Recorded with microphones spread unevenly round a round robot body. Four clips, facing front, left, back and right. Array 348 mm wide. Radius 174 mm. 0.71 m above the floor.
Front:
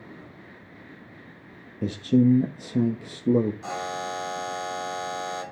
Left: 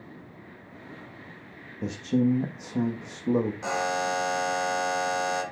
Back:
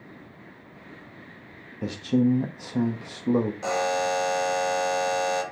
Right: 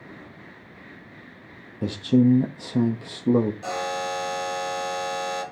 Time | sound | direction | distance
1.8 | a man speaking | 60° right | 0.8 m
3.6 | a buzzer | 165° left | 3 m